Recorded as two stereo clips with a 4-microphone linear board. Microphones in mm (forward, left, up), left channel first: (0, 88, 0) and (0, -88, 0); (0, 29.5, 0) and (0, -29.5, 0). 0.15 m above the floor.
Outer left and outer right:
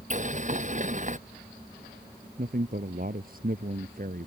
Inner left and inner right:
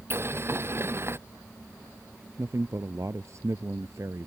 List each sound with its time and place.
0.1 s boiling: 45° right (ahead or behind)
2.4 s a man speaking: 55° right (ahead or behind)